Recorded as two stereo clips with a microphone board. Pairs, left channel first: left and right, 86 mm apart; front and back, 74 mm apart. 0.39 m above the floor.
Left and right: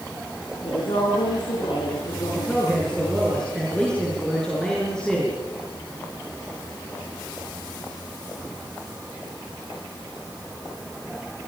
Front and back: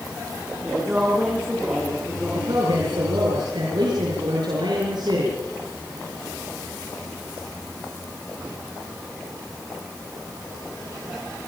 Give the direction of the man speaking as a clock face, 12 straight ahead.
6 o'clock.